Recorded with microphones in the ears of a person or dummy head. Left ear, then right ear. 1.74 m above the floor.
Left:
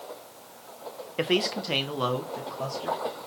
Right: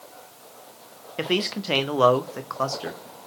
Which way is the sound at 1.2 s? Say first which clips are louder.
Even; 5° left (ahead or behind).